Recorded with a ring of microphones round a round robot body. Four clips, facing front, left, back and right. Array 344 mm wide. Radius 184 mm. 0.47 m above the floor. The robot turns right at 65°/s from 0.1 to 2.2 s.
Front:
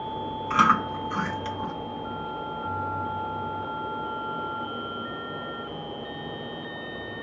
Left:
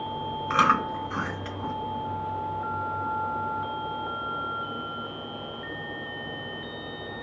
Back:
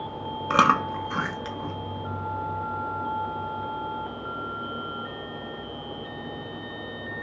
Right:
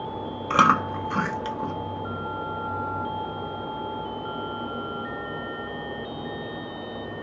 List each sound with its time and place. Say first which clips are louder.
0.5 s chewing: right 3 dB, back 1 dB; 155° right, 1.0 m; by 1.7 s 75° right, 1.0 m